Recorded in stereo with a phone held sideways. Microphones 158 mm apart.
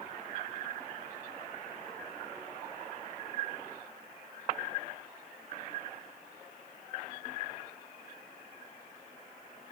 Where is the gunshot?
I don't hear a gunshot.